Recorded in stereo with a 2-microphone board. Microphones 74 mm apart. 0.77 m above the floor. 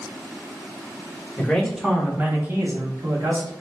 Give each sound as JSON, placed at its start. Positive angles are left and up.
{"t": 1.4, "sound": "a man speaking", "side_deg": 10, "distance_m": 0.9}